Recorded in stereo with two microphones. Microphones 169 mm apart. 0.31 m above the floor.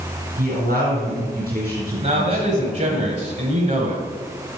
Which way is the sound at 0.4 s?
65° right (ahead or behind).